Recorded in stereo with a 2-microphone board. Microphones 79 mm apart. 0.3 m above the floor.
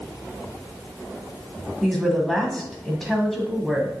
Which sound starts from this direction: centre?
A woman speaking, at 1.8 s.